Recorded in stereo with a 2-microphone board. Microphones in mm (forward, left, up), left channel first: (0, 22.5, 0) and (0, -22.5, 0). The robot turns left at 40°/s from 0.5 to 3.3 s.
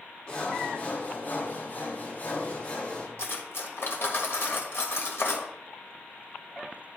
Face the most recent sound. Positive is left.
turn(degrees=65)  # may be behind; listen again after turning